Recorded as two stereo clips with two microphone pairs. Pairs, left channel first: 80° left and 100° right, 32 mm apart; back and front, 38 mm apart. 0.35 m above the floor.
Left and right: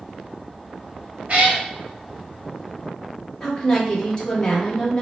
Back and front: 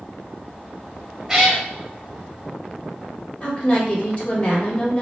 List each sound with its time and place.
1.3 s a cat meowing: 70° right, 1.0 m
3.4 s a woman speaking: 150° left, 1.2 m